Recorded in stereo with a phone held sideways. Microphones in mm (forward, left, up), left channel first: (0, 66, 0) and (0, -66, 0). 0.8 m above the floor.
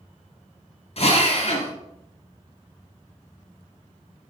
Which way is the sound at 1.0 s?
50° left (ahead or behind).